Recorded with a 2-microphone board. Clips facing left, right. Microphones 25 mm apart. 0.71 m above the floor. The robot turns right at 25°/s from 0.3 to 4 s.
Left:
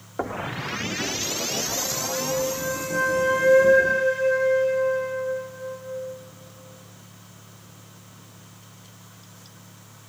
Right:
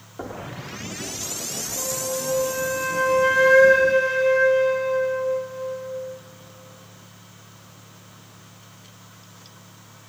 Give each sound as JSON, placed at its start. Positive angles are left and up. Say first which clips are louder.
{"t": 0.2, "sound": "knocking", "louder": "left 5 dB", "side_deg": 35, "distance_m": 0.9}
{"t": 1.8, "sound": "a flute", "louder": "even", "azimuth_deg": -170, "distance_m": 1.3}